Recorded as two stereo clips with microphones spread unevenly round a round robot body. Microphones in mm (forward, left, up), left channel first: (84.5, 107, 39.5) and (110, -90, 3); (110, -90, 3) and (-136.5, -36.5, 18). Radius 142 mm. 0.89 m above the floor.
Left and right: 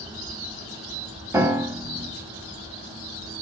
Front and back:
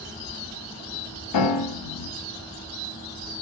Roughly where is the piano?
Ahead.